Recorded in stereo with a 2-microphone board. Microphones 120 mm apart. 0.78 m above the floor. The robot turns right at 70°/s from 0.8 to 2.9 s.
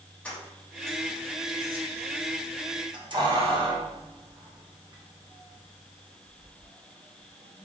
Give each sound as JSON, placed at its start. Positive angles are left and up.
{"t": 0.2, "sound": "keys jangling", "side_deg": 10, "distance_m": 0.8}